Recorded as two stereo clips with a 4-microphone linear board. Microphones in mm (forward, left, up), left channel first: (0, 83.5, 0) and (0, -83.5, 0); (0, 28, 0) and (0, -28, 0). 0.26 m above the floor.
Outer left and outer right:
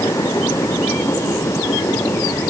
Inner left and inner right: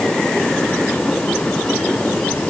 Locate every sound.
Only background noise.